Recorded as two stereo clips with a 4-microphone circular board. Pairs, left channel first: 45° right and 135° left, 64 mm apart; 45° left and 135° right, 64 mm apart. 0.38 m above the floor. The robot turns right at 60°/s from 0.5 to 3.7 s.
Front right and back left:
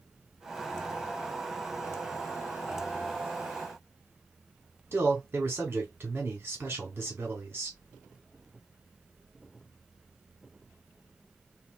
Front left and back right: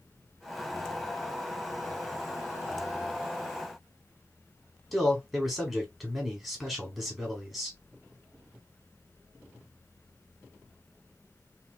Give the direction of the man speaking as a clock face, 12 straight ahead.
7 o'clock.